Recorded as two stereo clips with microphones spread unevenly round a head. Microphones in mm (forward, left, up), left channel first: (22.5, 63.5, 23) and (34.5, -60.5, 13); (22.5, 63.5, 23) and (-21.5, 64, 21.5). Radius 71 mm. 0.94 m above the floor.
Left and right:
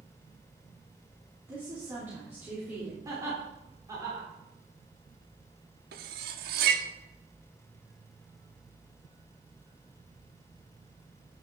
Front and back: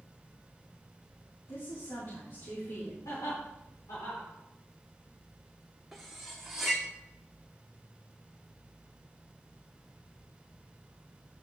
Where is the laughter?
20° right, 3 m.